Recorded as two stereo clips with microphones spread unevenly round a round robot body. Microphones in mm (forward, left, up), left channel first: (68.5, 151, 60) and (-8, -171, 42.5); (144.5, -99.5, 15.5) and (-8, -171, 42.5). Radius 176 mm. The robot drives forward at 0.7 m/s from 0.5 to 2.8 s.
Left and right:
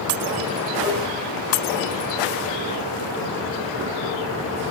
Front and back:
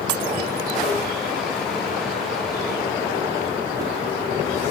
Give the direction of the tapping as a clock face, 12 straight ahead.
1 o'clock.